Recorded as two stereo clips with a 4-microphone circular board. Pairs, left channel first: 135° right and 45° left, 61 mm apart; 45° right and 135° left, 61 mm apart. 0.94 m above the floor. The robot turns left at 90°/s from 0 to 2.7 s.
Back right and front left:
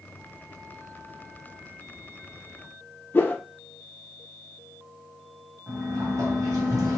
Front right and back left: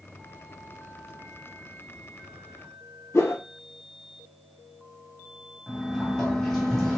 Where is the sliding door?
40° left, 1.4 m.